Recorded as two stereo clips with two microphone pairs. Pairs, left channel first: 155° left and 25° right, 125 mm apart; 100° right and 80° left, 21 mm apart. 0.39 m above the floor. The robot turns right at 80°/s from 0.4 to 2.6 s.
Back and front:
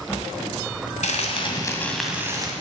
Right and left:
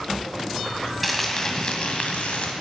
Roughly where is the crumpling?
Behind.